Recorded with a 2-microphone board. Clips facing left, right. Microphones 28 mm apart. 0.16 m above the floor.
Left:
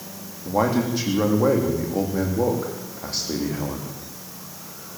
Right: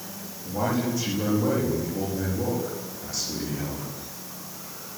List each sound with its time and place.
0.5 s a man speaking: 60° left (ahead or behind), 9.5 m